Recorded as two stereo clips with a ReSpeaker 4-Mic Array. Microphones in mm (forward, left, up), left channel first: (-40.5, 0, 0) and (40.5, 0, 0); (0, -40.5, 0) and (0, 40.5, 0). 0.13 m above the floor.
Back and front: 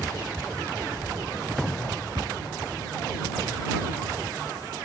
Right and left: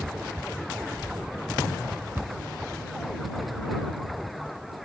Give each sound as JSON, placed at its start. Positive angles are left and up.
{"t": 2.1, "sound": "a cupboard door", "azimuth_deg": 25}